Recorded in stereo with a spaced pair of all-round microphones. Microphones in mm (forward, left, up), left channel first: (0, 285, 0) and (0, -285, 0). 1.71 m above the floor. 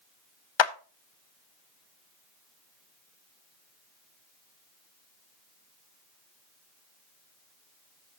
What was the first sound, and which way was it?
A clap, 50° left (ahead or behind).